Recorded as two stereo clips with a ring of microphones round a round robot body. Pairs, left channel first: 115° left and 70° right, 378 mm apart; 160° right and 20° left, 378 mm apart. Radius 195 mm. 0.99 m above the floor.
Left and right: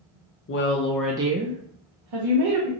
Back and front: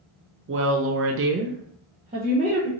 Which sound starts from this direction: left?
A woman speaking, at 0.5 s.